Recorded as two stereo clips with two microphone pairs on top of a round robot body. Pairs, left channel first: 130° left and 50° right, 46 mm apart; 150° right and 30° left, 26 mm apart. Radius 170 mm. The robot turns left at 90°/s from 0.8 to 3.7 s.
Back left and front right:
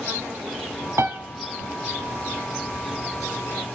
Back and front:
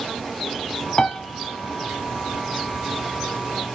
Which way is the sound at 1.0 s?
75° right.